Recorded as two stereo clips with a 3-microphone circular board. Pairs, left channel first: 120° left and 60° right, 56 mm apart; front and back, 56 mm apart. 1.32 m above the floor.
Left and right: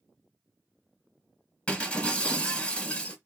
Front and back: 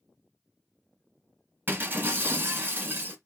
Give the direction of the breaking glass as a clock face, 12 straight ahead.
6 o'clock.